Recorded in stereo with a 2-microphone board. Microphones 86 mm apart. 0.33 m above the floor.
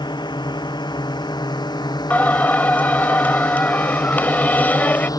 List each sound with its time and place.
0.0 s a drone: 60° left (ahead or behind); by 5.2 s 45° left (ahead or behind)
2.1 s singing: 20° left (ahead or behind)